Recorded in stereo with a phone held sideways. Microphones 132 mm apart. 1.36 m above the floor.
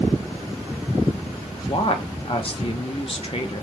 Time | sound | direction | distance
1.7 | a woman speaking | 45° left (ahead or behind) | 0.7 m